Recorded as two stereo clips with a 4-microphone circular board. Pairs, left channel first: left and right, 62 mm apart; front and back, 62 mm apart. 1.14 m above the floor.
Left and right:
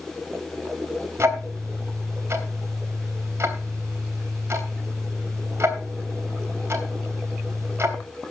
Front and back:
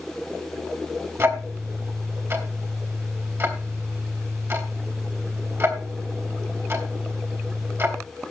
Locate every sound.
1.2 s ticking: 135° right, 3 m